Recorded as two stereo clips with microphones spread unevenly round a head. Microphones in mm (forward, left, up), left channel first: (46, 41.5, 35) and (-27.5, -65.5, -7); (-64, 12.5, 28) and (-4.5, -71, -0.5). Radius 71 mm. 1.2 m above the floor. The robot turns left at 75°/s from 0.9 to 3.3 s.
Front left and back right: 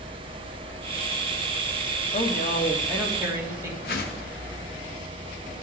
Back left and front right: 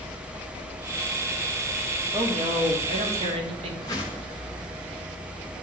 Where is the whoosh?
60° left, 0.9 m.